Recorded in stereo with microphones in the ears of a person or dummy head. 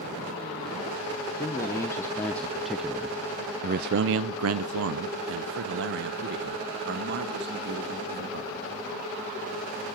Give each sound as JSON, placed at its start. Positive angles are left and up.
{"t": 1.4, "sound": "a man speaking", "side_deg": 20, "distance_m": 1.3}